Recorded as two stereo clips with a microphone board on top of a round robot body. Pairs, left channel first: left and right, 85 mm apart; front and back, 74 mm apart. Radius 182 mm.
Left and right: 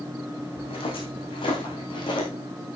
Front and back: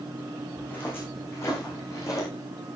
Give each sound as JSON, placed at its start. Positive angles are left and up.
{"t": 0.6, "sound": "footsteps", "azimuth_deg": 70, "distance_m": 4.0}